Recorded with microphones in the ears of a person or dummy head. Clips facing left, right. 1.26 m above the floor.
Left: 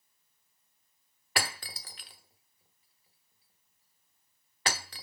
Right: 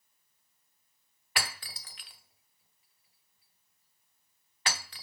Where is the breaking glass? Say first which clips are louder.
Left 3 dB; 35° left (ahead or behind), 1.0 m.